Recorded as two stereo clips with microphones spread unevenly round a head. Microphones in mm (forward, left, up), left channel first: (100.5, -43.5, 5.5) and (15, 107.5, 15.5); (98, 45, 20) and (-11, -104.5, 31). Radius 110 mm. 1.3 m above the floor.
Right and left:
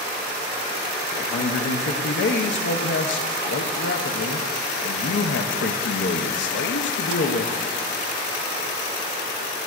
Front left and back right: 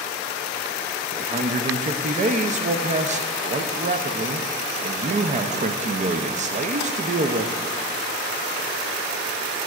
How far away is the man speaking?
About 0.6 m.